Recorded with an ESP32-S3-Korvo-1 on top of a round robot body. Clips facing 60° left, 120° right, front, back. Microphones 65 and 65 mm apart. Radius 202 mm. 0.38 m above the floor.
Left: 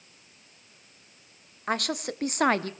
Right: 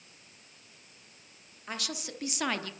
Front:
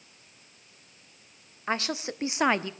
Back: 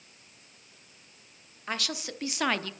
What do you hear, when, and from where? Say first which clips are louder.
1.7 s a woman speaking: left 10 dB, front 5 dB; 55° left, 1.8 m; by 2.7 s 60° left, 1.4 m